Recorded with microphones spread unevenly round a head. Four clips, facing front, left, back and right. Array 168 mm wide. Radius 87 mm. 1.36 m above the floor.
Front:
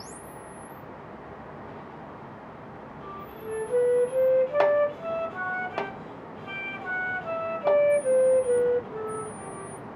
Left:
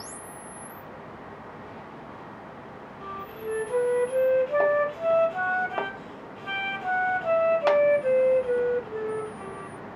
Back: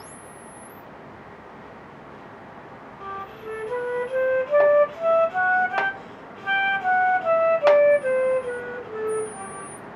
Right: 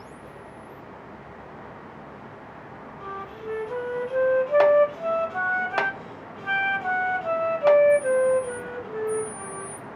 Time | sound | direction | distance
3.0 | a flute | 165° right | 2 m